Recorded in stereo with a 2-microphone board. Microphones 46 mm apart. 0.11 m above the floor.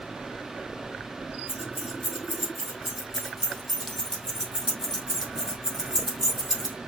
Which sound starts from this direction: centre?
Keys jangling, at 1.5 s.